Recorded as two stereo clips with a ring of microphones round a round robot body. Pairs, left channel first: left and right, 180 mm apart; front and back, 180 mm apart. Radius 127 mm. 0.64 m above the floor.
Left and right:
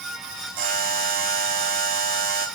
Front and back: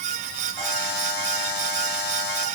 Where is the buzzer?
55° right, 2.5 m.